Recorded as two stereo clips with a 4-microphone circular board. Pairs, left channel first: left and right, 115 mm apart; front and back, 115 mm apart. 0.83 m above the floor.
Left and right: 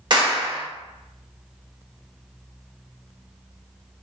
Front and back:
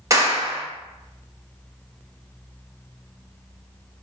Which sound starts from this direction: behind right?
A clap, at 0.1 s.